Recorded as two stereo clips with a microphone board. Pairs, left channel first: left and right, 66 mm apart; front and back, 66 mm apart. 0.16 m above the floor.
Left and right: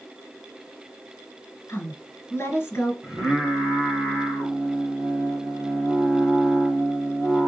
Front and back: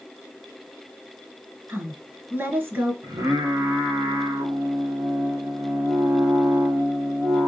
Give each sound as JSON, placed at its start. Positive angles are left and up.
{"t": 1.7, "sound": "a woman speaking", "azimuth_deg": 135, "distance_m": 1.9}
{"t": 3.0, "sound": "singing", "azimuth_deg": -175, "distance_m": 1.4}